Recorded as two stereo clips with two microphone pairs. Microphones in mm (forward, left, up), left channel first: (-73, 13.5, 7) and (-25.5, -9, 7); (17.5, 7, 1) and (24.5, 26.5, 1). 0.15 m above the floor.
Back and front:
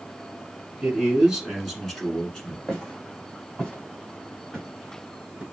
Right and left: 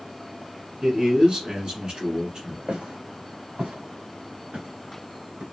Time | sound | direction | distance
0.8 | a man speaking | 40° left | 1.7 m
2.7 | footsteps | 75° left | 2.5 m